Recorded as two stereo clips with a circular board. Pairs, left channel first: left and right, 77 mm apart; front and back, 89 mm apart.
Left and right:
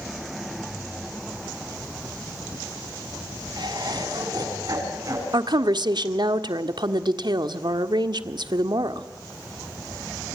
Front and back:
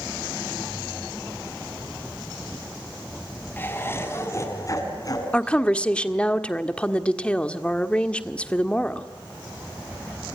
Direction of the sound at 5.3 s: 80° right.